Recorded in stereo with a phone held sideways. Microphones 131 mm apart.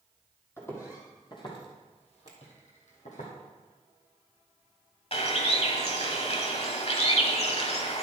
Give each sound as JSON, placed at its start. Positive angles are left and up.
{"t": 0.6, "sound": "footsteps", "side_deg": 15, "distance_m": 2.5}
{"t": 2.3, "sound": "a finger snap", "side_deg": -30, "distance_m": 2.0}
{"t": 5.1, "sound": "a bird", "side_deg": 50, "distance_m": 1.2}